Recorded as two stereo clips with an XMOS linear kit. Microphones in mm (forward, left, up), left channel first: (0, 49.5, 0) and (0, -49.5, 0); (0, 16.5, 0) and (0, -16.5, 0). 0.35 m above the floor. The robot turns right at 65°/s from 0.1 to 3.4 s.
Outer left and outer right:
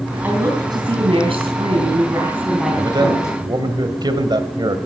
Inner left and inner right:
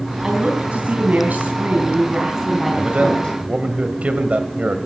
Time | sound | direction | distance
0.2 | a woman speaking | 160° right | 3 m
2.8 | a man speaking | 120° right | 2 m